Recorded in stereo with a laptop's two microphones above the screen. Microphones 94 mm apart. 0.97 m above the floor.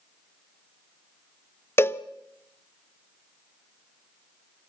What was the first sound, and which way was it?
A cowbell, 25° left (ahead or behind).